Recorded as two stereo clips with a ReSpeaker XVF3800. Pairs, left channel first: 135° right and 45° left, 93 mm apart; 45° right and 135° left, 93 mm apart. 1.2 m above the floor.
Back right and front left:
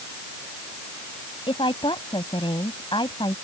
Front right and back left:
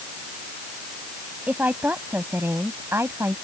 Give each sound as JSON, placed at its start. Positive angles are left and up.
{"t": 1.5, "sound": "a woman speaking", "azimuth_deg": -155}